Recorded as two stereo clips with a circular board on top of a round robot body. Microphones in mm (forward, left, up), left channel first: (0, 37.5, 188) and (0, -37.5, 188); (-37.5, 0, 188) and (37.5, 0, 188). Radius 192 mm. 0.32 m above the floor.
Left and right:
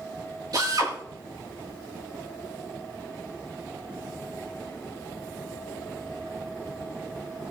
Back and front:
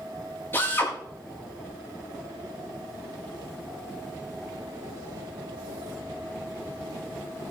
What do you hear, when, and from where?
0.5 s a drill: 120° right, 5.5 m